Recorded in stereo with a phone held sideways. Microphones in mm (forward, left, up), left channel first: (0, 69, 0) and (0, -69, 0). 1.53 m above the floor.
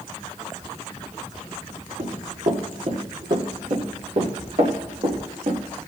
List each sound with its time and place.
2.0 s running footsteps: 60° right (ahead or behind), 3.5 m